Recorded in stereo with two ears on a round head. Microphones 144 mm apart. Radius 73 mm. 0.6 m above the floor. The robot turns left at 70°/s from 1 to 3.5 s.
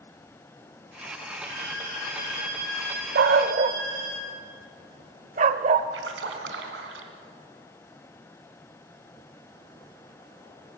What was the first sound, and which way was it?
A violin, 115° left.